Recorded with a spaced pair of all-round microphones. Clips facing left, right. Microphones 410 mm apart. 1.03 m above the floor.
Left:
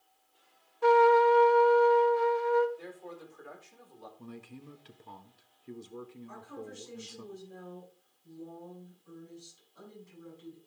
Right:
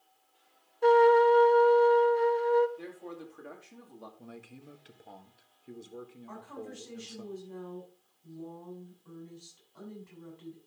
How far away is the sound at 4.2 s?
About 1.4 m.